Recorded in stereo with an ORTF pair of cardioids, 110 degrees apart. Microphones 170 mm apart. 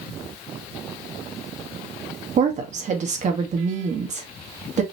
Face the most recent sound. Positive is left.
turn(degrees=-45)